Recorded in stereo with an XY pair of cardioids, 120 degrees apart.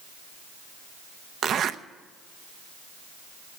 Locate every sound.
1.4 s a zipper: 55° right, 0.6 m